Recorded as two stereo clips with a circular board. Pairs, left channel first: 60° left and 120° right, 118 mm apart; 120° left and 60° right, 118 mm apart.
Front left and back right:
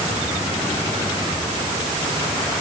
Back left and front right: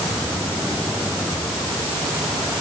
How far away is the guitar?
No guitar in this recording.